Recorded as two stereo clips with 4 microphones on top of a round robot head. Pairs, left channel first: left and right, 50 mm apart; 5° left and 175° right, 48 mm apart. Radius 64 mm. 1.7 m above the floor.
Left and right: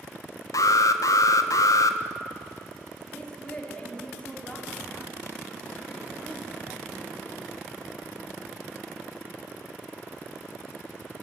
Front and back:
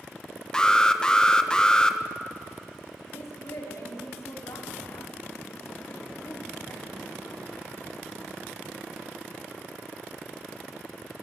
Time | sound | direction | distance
0.5 | an alarm | 80° left | 1.2 m
3.1 | a woman speaking | 25° left | 5.5 m